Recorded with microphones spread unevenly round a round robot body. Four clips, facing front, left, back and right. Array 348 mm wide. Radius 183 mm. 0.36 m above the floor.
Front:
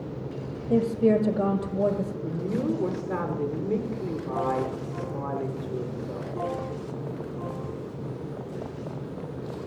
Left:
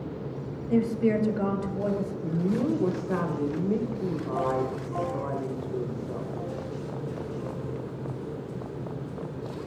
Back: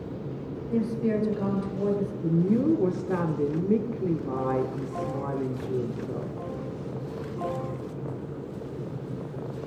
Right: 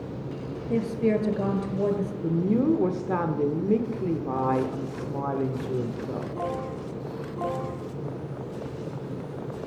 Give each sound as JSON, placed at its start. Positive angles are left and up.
{"t": 0.7, "sound": "a woman speaking", "azimuth_deg": -10, "distance_m": 1.8}
{"t": 2.2, "sound": "a woman speaking", "azimuth_deg": -120, "distance_m": 1.4}